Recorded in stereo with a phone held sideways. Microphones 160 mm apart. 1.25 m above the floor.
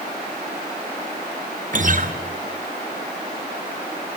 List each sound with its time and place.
1.7 s a guitar: 55° right (ahead or behind), 2 m